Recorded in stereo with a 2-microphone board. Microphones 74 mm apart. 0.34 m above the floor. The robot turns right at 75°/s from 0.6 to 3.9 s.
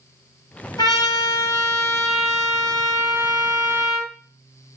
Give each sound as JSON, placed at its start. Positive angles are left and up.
{"t": 0.8, "sound": "a trumpet", "azimuth_deg": 90, "distance_m": 1.5}